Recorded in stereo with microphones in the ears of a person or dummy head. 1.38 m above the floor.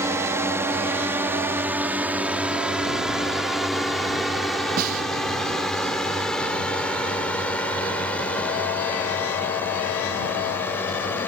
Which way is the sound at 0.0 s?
15° right (ahead or behind).